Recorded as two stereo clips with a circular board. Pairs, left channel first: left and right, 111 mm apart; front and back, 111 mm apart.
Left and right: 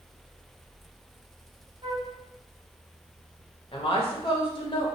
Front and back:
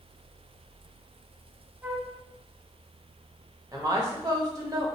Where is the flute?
110° right, 0.7 m.